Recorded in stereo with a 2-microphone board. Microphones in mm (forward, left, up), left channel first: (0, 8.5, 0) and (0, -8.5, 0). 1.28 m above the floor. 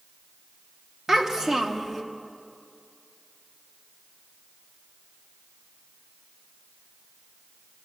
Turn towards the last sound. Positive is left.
turn(degrees=-35)  # may be behind; listen again after turning